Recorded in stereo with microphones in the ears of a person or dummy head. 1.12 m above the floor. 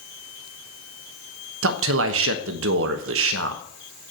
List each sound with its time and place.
1.6 s a man speaking: 75° right (ahead or behind), 1.2 m